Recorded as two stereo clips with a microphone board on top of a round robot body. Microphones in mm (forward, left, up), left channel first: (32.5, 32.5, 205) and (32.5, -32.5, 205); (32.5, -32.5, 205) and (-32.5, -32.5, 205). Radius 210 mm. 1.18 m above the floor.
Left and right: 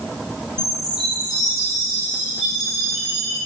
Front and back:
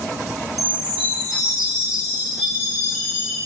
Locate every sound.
0.6 s a chime: 90° left, 2.0 m